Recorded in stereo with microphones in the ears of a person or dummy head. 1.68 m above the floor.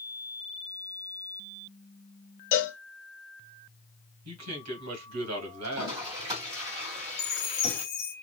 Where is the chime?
35° left (ahead or behind), 1.1 m.